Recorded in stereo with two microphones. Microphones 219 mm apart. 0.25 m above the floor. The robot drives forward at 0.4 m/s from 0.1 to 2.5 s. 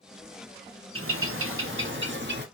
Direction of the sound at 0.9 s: 75° right (ahead or behind).